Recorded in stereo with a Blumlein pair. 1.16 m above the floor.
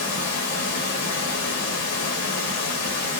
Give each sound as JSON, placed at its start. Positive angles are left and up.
{"t": 0.0, "sound": "running water", "azimuth_deg": 50, "distance_m": 1.6}